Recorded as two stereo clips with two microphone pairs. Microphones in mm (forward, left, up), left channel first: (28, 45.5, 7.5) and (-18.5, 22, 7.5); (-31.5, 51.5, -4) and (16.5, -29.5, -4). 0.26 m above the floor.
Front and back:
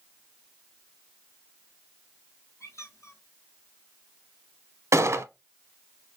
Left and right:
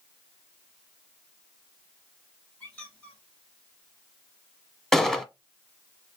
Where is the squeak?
45° left, 2.0 m.